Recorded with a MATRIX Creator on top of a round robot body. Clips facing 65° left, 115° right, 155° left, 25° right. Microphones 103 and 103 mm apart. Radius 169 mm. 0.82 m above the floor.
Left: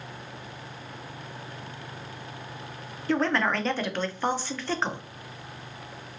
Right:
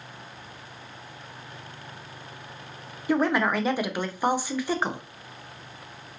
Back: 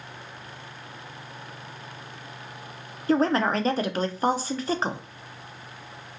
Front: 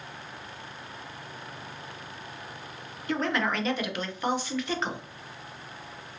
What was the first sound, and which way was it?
A woman speaking, 175° left.